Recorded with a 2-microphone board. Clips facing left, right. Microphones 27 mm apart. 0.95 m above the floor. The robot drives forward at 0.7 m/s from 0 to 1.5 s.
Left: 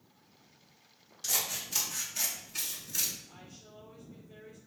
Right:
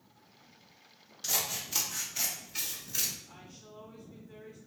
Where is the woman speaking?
35° right (ahead or behind), 2.0 m.